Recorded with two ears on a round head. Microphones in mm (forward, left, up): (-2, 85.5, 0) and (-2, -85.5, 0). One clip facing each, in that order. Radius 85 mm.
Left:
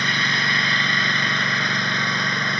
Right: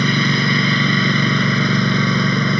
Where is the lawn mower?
80° right.